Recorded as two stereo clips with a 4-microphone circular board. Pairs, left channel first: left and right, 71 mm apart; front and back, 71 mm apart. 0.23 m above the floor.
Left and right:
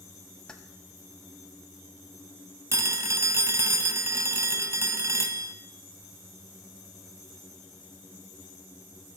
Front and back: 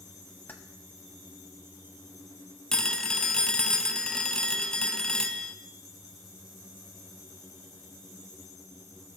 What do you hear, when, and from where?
0.5 s keys jangling: 25° left, 0.9 m
2.7 s a phone ringing: 75° right, 0.7 m